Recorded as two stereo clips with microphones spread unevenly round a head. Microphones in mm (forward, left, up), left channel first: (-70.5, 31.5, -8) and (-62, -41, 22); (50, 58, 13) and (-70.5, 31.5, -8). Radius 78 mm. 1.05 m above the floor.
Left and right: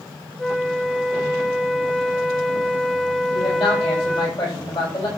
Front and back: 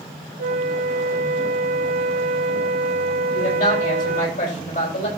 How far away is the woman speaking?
About 5 m.